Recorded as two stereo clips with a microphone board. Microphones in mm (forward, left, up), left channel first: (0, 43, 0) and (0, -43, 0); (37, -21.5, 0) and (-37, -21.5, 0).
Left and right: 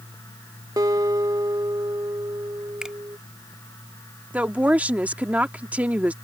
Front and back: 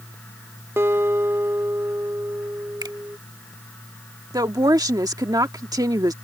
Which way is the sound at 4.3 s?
160° right.